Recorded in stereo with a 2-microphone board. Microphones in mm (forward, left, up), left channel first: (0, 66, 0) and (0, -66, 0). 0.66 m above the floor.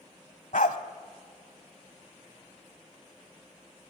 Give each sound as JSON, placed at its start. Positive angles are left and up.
{"t": 0.5, "sound": "a dog barking", "side_deg": 75, "distance_m": 1.5}